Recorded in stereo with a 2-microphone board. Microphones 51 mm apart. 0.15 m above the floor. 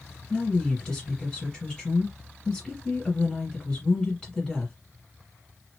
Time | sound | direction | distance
0.3 | a woman speaking | 20° left (ahead or behind) | 2.0 m